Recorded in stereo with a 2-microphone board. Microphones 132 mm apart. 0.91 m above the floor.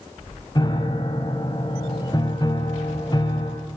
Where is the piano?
35° left (ahead or behind), 1.3 m.